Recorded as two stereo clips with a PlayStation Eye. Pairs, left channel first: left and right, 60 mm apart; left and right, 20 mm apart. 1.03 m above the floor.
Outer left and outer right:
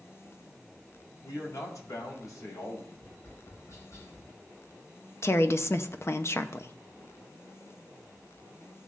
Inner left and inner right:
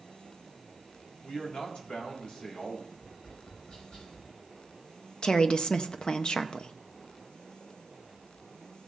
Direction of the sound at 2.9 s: 60° left (ahead or behind).